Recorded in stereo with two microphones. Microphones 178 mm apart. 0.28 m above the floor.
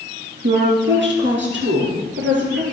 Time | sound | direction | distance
0.4 | a woman speaking | 80° right | 5 m